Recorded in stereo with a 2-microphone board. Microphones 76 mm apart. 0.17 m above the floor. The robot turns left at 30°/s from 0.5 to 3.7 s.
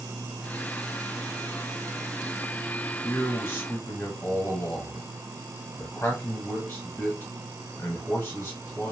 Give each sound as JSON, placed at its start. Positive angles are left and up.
{"t": 3.0, "sound": "a man speaking", "side_deg": 20, "distance_m": 1.5}